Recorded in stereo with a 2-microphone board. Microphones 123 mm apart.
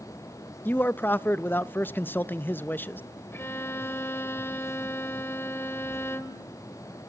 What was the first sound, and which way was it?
A man speaking, 15° left (ahead or behind).